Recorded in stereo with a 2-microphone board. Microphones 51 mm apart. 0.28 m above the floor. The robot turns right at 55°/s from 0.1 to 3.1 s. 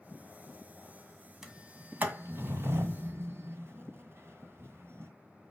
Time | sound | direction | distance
1.4 | a sliding door | 10° right (ahead or behind) | 1.7 m